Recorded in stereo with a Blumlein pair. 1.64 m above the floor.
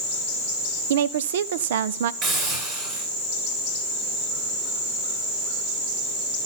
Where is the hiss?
40° right, 8 m.